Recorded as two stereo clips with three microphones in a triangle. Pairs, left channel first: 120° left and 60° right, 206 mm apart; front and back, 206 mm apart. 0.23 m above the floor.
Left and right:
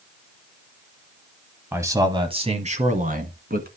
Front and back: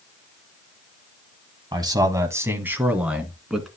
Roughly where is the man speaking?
Behind right.